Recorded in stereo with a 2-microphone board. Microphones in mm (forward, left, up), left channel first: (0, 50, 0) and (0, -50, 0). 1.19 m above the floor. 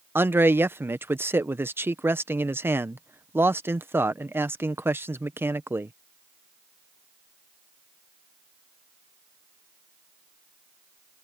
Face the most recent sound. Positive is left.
turn(degrees=-20)  # may be behind; listen again after turning